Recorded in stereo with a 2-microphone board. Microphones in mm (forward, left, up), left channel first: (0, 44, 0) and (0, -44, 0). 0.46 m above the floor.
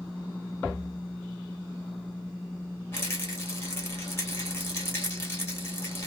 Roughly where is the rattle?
Left.